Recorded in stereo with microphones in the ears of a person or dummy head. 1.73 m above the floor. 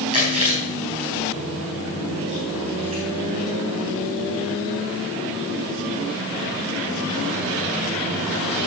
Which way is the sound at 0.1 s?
35° right (ahead or behind).